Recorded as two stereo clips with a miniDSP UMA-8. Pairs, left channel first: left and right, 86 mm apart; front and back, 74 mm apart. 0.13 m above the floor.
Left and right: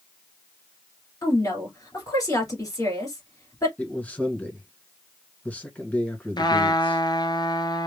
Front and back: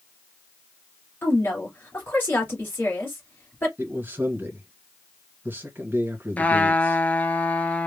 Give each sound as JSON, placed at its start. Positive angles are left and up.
{"t": 1.2, "sound": "a woman speaking", "azimuth_deg": 55, "distance_m": 2.5}
{"t": 3.8, "sound": "a man speaking", "azimuth_deg": 150, "distance_m": 1.4}
{"t": 6.4, "sound": "a trumpet", "azimuth_deg": 65, "distance_m": 0.7}